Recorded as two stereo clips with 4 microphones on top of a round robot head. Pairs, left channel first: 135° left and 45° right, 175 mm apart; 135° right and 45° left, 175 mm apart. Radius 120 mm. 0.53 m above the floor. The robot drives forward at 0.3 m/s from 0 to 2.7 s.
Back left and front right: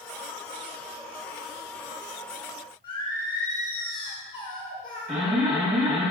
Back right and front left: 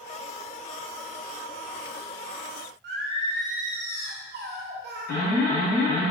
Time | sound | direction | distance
2.8 | singing | 70° left | 0.7 m
5.1 | an alarm | 140° right | 1.8 m